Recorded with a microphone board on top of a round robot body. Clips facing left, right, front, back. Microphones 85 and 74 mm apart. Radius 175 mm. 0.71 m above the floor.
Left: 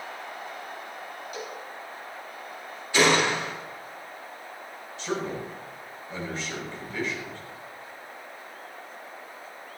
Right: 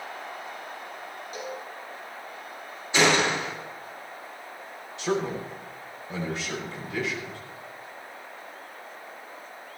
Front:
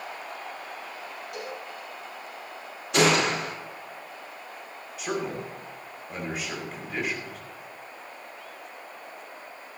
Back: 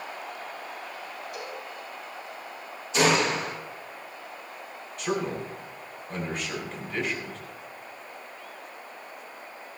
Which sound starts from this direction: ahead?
A gunshot, at 2.9 s.